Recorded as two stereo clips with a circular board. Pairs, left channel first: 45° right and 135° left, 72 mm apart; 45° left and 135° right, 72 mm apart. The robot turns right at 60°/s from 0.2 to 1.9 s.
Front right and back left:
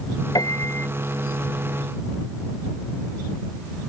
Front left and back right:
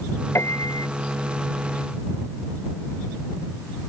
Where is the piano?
10° right; by 0.9 s 25° left.